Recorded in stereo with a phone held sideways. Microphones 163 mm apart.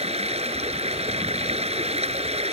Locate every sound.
0.0 s running water: 40° right (ahead or behind)